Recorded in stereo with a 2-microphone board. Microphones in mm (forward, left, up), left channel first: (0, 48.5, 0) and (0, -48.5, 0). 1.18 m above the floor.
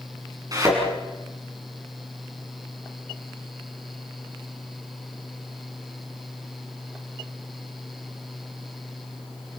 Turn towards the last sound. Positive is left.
turn(degrees=-40)  # may be behind; listen again after turning